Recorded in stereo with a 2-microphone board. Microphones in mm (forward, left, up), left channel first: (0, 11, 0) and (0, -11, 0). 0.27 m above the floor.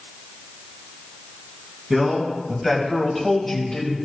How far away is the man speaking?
About 2.5 m.